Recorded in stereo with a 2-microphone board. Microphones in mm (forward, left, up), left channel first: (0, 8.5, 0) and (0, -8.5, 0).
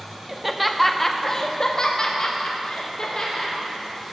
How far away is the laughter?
About 0.6 m.